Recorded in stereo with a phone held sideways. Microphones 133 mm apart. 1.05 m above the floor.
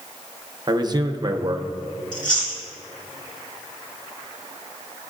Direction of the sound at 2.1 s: 80° left.